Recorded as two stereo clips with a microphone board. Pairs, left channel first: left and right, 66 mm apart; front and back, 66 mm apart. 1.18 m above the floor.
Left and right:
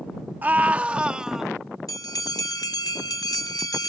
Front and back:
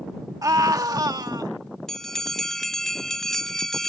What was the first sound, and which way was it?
A scream, 150° right.